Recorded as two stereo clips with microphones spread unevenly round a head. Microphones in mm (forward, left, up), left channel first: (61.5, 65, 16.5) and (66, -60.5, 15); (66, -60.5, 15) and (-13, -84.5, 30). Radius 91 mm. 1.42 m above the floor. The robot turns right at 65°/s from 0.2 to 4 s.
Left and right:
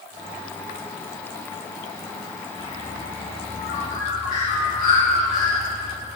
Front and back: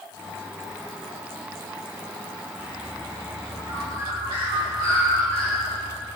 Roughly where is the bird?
Ahead left.